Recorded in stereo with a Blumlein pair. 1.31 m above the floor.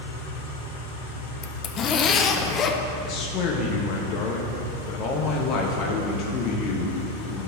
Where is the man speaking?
35° left, 1.1 m.